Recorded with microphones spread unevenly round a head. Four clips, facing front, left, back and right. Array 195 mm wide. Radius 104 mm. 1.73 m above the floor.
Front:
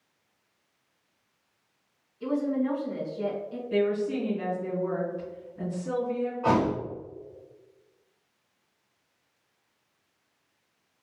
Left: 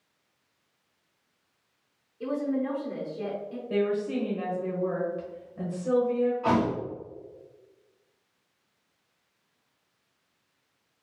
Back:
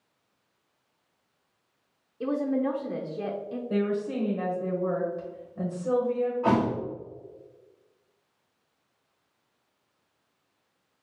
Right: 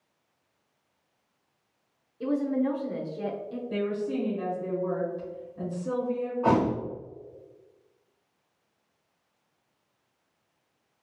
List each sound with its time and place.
2.2 s a woman speaking: 175° right, 0.8 m
3.7 s a woman speaking: 150° left, 1.2 m
6.4 s a thud: 135° right, 1.5 m